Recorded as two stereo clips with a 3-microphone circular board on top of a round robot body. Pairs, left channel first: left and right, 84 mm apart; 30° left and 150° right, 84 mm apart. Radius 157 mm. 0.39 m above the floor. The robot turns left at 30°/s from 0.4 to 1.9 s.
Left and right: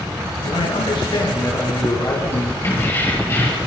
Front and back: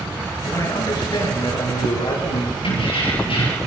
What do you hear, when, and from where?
0.4 s a man speaking: 80° left, 8 m; by 2.5 s 40° left, 8 m
2.6 s keys jangling: 25° left, 8 m